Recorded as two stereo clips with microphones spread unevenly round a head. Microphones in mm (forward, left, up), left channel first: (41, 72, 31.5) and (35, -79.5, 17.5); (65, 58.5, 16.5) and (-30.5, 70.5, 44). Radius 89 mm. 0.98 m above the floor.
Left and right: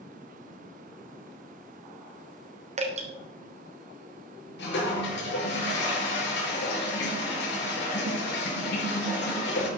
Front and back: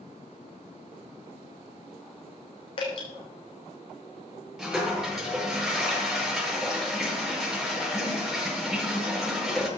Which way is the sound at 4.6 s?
90° left.